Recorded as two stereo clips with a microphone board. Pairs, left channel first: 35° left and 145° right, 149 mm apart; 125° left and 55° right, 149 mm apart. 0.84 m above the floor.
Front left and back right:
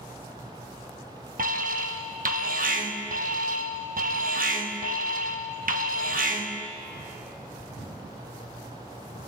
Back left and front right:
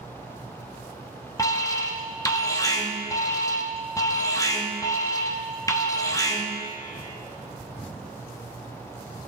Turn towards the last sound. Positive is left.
turn(degrees=-165)